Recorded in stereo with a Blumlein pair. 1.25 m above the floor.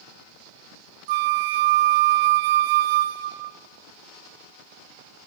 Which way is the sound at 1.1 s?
50° right.